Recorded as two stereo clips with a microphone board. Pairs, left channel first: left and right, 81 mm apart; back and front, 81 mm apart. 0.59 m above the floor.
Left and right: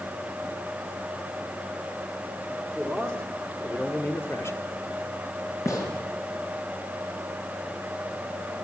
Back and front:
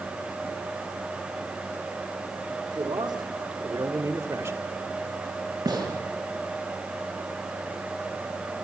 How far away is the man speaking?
About 3 m.